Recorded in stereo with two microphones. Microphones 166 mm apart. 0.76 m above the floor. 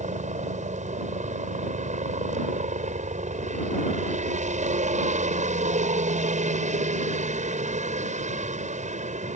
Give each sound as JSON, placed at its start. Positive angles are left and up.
{"t": 0.0, "sound": "a helicopter", "side_deg": -45}